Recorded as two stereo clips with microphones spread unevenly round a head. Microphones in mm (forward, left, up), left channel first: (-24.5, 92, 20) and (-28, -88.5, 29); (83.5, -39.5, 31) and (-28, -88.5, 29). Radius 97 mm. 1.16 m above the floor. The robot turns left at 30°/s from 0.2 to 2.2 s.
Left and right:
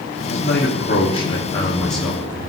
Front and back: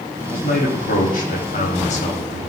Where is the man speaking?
50° left, 3 m; by 2.4 s 5° right, 3 m.